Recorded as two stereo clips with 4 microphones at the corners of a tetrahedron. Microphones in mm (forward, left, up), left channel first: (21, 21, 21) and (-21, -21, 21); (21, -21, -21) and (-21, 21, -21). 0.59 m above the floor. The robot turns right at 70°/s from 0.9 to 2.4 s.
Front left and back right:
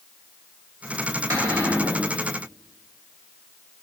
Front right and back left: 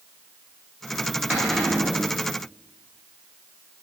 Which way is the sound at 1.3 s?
155° right.